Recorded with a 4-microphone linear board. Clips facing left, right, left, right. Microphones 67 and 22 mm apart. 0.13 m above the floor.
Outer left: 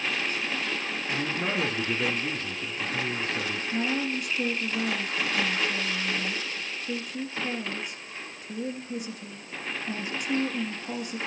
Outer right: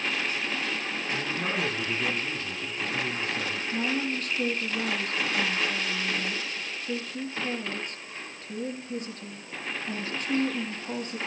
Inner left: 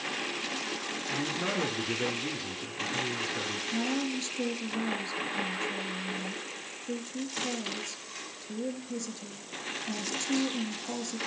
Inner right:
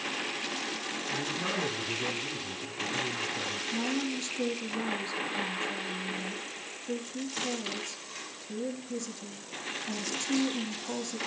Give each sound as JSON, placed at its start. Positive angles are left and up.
{"t": 1.1, "sound": "a man speaking", "side_deg": 50, "distance_m": 2.5}
{"t": 3.7, "sound": "a woman speaking", "side_deg": 10, "distance_m": 2.5}